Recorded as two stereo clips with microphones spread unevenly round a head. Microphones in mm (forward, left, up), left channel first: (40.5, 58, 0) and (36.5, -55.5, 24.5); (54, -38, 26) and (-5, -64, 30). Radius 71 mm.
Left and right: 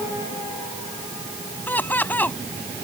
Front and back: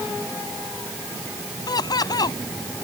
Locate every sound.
1.7 s laughter: 10° left